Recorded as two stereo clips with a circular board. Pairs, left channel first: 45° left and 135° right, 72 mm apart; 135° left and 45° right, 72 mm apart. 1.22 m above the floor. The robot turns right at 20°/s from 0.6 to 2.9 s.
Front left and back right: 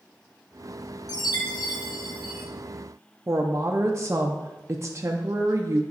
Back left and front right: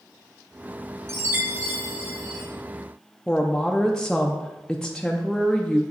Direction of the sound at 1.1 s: 10° left.